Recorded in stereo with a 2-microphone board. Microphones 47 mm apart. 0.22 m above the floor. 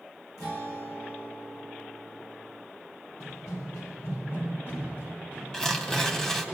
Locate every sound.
0.4 s a guitar: 70° left (ahead or behind), 3 m
3.2 s running footsteps: 75° left (ahead or behind), 1.7 m; by 6.5 s 30° left (ahead or behind), 4 m
5.5 s tearing paper: 15° left (ahead or behind), 0.9 m